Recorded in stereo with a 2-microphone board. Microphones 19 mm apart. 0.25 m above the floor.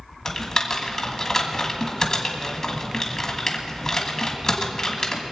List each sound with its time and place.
0.2 s typing on a keyboard: 30° left (ahead or behind), 2.0 m